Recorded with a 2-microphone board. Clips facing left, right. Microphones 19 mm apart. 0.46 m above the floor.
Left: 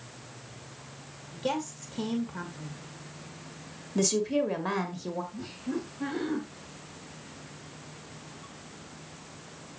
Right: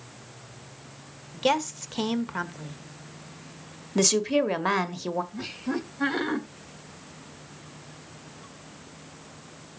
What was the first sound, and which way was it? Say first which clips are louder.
A woman speaking: right 7 dB; 50° right (ahead or behind).